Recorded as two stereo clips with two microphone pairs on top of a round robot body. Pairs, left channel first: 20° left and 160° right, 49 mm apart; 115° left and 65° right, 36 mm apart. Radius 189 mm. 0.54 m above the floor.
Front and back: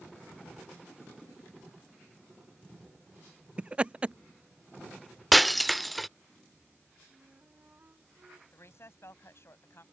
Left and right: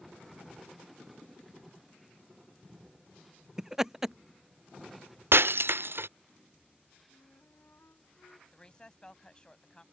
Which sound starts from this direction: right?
Breaking glass, at 5.3 s.